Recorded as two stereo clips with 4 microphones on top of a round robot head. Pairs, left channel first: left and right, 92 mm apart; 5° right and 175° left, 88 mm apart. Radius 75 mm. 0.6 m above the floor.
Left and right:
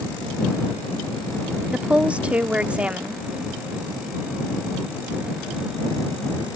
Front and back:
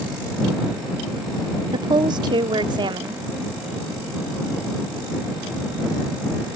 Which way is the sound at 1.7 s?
165° right.